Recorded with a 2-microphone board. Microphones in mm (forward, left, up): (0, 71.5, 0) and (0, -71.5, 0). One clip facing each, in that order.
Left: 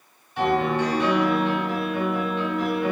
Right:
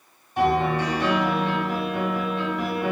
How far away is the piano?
About 1.2 m.